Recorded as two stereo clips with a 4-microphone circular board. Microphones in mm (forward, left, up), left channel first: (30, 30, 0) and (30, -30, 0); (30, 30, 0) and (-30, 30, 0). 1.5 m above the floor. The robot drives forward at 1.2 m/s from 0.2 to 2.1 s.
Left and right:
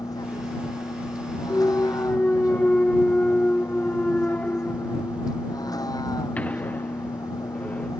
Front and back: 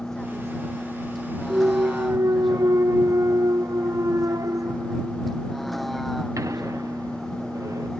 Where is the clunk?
125° left; by 7.9 s 155° left.